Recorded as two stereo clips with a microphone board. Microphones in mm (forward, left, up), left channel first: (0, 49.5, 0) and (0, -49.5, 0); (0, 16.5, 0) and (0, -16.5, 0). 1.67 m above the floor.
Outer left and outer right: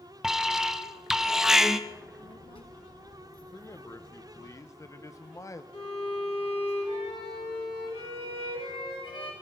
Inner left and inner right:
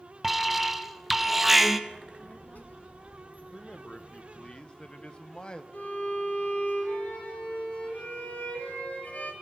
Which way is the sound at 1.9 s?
65° left (ahead or behind).